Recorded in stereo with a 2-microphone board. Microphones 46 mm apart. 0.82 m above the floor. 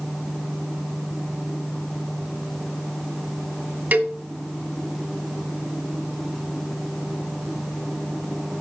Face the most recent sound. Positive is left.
turn(degrees=-40)  # may be behind; listen again after turning